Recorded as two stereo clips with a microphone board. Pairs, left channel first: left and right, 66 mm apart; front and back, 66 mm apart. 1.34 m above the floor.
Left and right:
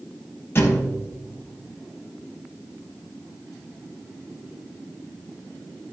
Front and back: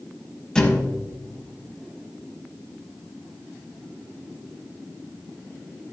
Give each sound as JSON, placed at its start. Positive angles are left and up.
{"t": 0.6, "sound": "a thud", "azimuth_deg": 75, "distance_m": 1.4}